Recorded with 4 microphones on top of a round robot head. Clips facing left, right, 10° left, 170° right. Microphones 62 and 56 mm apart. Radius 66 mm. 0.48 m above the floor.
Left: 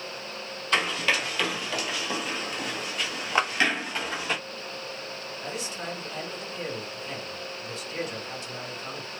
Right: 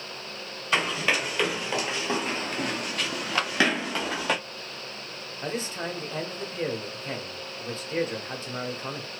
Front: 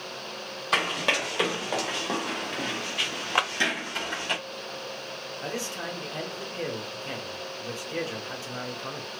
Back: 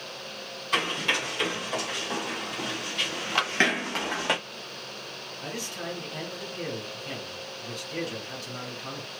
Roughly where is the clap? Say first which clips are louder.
Left 4 dB, front 2 dB; ahead left.